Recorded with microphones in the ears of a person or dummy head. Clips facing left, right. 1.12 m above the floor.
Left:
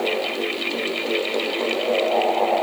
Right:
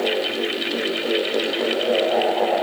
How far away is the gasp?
I don't hear a gasp.